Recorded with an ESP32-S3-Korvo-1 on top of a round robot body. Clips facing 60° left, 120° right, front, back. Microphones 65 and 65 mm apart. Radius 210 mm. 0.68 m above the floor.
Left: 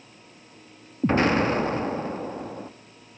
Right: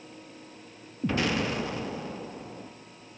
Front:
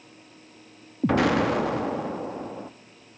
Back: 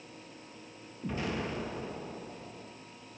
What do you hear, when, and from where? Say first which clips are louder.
1.0 s an explosion: left 7 dB, front 14 dB; 10° left, 0.6 m